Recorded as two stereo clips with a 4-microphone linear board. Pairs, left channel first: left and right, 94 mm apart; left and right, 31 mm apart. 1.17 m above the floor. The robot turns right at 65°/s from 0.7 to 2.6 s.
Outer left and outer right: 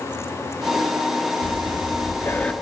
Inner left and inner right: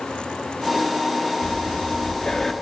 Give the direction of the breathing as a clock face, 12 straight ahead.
9 o'clock.